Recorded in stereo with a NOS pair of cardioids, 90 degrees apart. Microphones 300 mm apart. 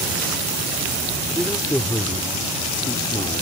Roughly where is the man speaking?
Ahead.